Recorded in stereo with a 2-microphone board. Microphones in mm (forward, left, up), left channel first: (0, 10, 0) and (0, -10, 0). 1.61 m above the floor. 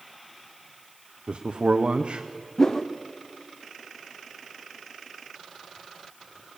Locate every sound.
1.3 s a man speaking: 85° right, 0.8 m
2.6 s a whoosh: 30° left (ahead or behind), 0.8 m